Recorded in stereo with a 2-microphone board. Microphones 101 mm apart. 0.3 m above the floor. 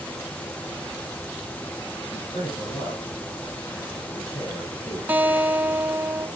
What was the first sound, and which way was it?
A man speaking, 40° left (ahead or behind).